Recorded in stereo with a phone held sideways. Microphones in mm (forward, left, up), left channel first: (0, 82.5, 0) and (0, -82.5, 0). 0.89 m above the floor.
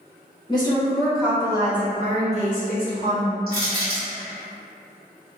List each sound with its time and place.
0.5 s a woman speaking: 30° left (ahead or behind), 0.8 m; by 3.4 s 60° right (ahead or behind), 1.5 m
3.5 s crushing: 65° right (ahead or behind), 1.7 m